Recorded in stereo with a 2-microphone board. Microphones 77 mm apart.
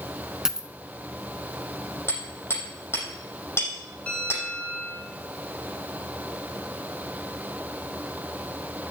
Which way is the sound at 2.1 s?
30° left (ahead or behind).